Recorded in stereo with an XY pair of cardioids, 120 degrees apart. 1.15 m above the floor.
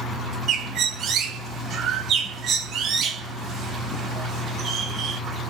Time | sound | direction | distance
0.5 | a bird | 60° right | 1.0 m